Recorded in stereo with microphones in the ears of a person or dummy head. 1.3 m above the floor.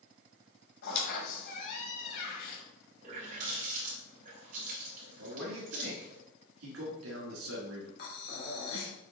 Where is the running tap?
40° right (ahead or behind), 3.5 m.